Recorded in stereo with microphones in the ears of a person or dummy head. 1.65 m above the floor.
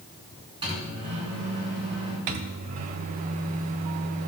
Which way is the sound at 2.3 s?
45° right (ahead or behind).